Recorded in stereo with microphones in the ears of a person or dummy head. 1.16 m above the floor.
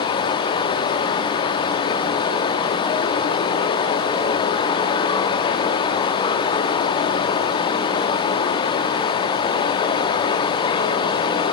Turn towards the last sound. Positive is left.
turn(degrees=30)  # may be behind; listen again after turning